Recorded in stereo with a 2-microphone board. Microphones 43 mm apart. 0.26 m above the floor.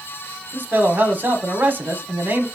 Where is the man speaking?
45° right (ahead or behind), 1.5 m.